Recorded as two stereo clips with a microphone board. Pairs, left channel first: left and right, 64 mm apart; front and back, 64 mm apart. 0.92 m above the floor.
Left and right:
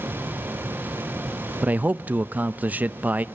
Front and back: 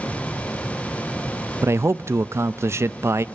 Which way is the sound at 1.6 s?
150° right.